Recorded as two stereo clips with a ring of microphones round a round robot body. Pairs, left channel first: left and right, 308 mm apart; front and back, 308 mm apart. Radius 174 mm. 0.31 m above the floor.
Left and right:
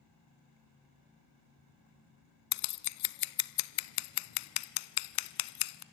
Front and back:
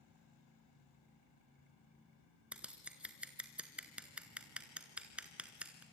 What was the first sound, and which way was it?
Scissors, 95° left.